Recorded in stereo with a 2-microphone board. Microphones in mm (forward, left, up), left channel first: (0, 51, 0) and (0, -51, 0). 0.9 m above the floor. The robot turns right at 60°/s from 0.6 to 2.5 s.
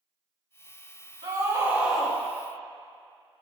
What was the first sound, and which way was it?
A scream, 45° right.